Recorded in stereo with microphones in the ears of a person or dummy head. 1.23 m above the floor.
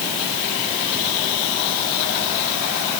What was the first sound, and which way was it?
Only background noise.